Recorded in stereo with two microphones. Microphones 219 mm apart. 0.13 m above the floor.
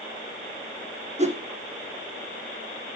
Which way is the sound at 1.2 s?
30° right (ahead or behind).